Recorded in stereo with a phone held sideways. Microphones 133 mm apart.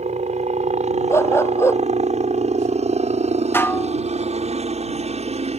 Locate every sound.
0.0 s a helicopter: 60° right (ahead or behind); by 5.6 s 55° right (ahead or behind)
1.1 s a dog barking: 20° left (ahead or behind)
3.5 s dishes clattering: 15° left (ahead or behind)